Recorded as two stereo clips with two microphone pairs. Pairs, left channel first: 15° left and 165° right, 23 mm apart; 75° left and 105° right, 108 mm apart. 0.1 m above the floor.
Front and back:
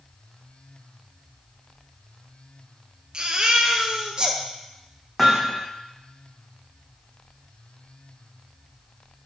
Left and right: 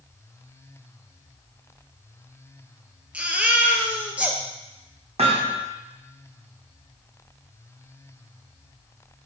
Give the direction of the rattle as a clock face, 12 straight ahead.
I don't hear a rattle.